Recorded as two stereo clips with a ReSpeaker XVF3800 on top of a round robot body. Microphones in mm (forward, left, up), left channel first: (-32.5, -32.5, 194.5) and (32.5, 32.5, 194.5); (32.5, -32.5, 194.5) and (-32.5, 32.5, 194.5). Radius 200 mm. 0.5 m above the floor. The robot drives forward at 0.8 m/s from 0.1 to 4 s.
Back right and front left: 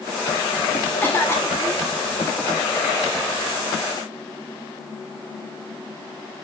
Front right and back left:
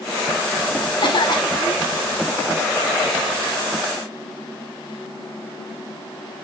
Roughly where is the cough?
Right.